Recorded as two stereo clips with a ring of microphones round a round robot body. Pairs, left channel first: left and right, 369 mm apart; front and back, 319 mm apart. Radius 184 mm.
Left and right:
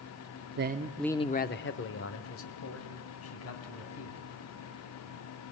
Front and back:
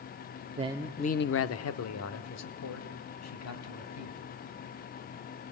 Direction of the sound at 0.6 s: 125° right.